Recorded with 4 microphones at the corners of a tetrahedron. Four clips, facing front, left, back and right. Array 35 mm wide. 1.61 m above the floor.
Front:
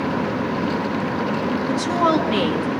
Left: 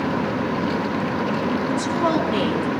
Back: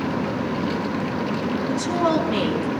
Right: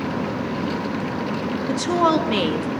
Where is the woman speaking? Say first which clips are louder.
Right 5 dB, front 3 dB; 70° right, 2.5 m.